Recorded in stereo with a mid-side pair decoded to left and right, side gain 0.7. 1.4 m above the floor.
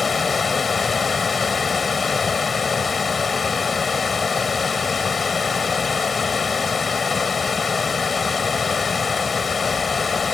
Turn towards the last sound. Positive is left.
turn(degrees=20)